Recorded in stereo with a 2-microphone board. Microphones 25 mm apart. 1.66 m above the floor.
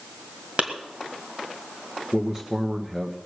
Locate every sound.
0.6 s a clap: 60° right (ahead or behind), 1.8 m
2.1 s a man speaking: 20° right (ahead or behind), 1.0 m